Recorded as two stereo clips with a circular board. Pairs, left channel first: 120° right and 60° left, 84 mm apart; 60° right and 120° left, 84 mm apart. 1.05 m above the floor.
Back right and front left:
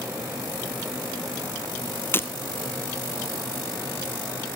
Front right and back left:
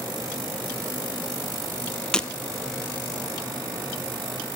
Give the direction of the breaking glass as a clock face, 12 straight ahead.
4 o'clock.